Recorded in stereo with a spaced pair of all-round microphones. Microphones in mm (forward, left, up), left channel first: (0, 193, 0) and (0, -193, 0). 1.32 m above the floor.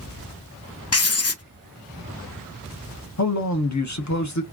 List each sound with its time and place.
0.9 s writing: 40° left (ahead or behind), 0.6 m
3.2 s a man speaking: 45° left (ahead or behind), 0.9 m